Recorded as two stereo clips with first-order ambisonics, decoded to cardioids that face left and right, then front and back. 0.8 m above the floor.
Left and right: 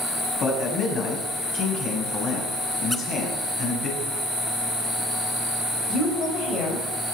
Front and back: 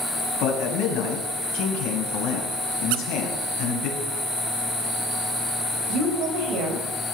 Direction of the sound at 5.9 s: 145° left.